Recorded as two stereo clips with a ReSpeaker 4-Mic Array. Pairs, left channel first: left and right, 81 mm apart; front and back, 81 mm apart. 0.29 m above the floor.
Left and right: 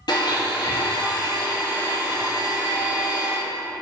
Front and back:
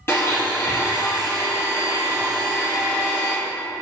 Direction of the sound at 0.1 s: 60° left.